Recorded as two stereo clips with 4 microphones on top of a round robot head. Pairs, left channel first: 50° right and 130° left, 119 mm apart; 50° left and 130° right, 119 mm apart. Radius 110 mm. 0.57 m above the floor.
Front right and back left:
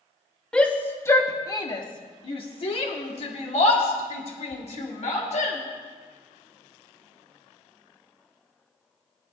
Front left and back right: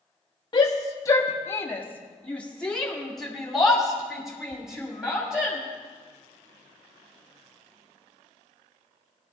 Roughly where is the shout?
Ahead left.